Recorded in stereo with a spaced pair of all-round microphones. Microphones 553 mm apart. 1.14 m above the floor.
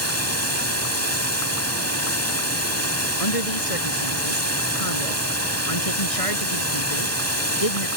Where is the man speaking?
85° left.